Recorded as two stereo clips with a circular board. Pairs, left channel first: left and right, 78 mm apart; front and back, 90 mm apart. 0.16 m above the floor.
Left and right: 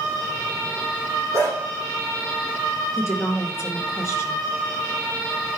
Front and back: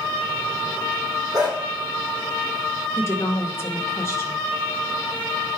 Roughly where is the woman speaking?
Ahead left.